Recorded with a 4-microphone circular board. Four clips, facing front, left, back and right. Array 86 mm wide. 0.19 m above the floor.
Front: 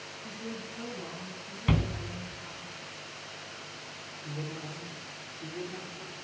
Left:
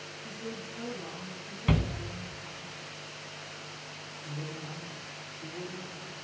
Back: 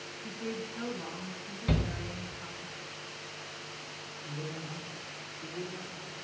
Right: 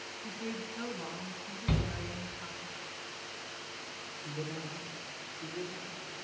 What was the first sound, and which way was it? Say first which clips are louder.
A woman speaking: right 1 dB, back 3 dB; 120° right.